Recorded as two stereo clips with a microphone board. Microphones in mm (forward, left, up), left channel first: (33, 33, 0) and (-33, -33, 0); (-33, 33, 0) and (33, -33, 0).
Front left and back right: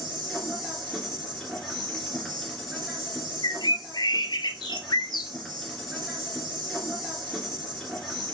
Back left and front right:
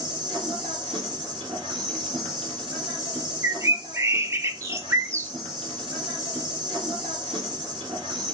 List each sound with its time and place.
0.0 s an insect: 45° right, 2.0 m
3.4 s a bird: 10° left, 0.5 m